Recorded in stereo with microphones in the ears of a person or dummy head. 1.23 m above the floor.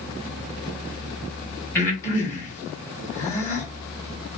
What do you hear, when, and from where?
1.8 s breathing: 15° left (ahead or behind), 1.5 m